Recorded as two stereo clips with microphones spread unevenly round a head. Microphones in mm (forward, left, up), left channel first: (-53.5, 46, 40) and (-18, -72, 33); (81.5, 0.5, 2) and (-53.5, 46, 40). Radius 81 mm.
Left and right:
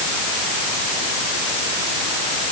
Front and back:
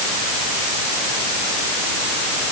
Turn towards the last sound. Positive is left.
No sound to turn to.